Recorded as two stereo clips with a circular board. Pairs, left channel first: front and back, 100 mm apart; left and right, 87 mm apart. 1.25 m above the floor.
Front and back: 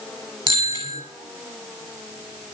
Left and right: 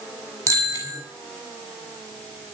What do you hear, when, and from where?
0.5 s a bicycle bell: 145° right, 7.5 m